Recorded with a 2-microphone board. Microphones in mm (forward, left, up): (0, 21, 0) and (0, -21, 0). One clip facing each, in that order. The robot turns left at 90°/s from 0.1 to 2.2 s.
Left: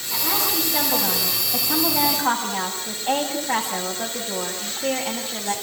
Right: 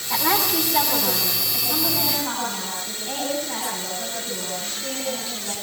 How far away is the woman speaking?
About 8 m.